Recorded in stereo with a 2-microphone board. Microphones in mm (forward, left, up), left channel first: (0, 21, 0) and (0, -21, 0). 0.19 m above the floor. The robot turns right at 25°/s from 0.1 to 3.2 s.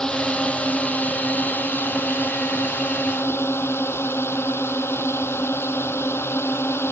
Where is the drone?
20° left; by 6.9 s 100° left.